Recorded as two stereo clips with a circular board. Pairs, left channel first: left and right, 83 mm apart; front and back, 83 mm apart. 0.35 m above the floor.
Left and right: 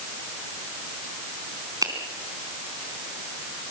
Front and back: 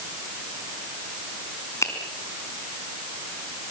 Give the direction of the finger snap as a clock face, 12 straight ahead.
2 o'clock.